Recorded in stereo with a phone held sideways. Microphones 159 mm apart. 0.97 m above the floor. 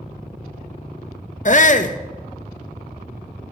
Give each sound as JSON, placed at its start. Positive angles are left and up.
{"t": 1.4, "sound": "a shout", "side_deg": 50, "distance_m": 0.6}